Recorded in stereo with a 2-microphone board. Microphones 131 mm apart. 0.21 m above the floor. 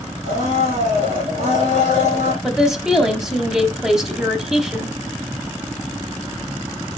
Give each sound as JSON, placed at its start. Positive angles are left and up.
{"t": 0.2, "sound": "a blender", "side_deg": -65, "distance_m": 4.0}
{"t": 2.4, "sound": "a woman speaking", "side_deg": -5, "distance_m": 1.0}